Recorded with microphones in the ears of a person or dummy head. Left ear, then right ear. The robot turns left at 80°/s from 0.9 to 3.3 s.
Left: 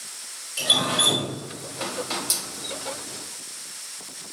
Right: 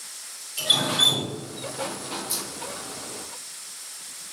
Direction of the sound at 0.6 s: 15° left (ahead or behind).